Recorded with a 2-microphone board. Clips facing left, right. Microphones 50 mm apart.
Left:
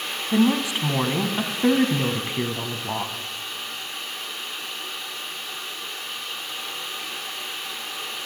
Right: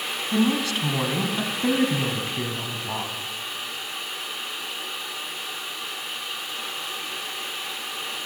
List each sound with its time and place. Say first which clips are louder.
0.3 s a woman speaking: left 2 dB; 20° left (ahead or behind), 1.0 m